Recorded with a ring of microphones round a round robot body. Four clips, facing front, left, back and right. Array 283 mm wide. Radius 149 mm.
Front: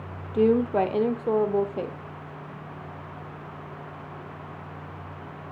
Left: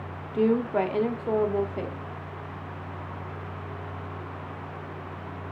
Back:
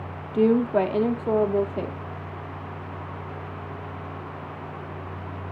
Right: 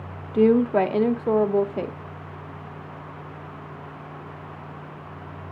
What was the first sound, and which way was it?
A woman speaking, 100° right.